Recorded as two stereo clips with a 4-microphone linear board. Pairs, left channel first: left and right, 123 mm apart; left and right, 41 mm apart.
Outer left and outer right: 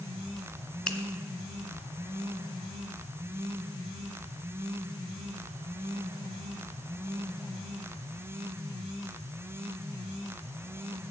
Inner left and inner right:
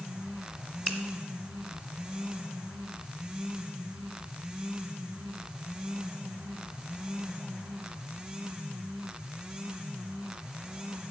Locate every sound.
0.9 s a finger snap: 10° left (ahead or behind), 1.3 m